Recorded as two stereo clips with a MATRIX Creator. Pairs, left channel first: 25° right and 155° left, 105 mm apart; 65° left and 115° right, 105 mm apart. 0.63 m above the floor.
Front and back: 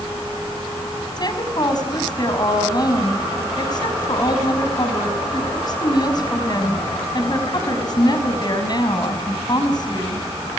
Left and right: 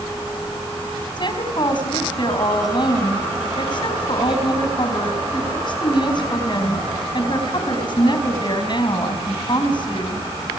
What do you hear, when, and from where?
1.2 s a woman speaking: 25° left, 4 m